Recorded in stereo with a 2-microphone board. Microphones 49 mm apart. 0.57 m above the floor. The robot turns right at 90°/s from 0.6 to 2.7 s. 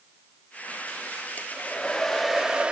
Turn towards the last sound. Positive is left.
turn(degrees=-135)